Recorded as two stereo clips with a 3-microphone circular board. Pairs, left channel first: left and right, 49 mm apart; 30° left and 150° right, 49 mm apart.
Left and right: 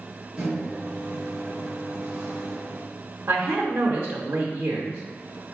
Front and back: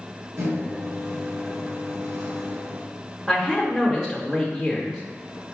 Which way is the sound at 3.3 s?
60° right.